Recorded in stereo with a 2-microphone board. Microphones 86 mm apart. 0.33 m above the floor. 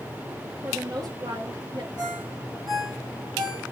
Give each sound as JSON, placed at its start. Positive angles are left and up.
{"t": 0.6, "sound": "a woman speaking", "side_deg": -50, "distance_m": 8.0}
{"t": 2.0, "sound": "a ringtone", "side_deg": -55, "distance_m": 9.0}